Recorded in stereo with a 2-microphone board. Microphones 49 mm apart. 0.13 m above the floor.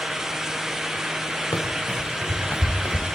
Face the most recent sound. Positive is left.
turn(degrees=75)  # may be behind; listen again after turning